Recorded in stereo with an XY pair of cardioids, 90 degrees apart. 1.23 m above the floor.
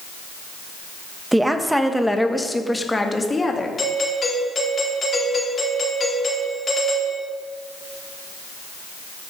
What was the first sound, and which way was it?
A woman speaking, 10° right.